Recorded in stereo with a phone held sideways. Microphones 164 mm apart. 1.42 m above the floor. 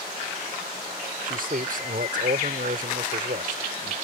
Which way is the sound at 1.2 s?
65° right (ahead or behind).